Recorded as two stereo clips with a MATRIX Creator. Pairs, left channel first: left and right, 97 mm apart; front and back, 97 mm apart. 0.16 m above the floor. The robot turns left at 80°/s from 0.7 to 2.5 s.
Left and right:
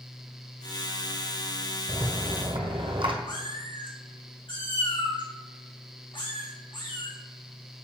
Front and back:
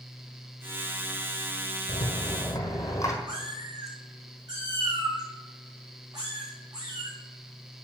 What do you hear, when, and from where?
1.9 s a rattle: 5° right, 1.4 m; by 3.1 s 55° right, 1.4 m
3.3 s a cat meowing: 130° left, 2 m